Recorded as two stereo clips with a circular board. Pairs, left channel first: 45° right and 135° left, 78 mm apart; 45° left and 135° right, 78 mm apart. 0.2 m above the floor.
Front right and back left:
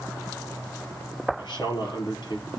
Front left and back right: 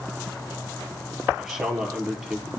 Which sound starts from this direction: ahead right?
A man speaking, at 1.4 s.